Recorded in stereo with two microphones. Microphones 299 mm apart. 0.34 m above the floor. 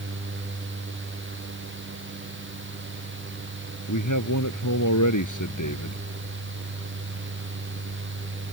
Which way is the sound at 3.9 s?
80° left.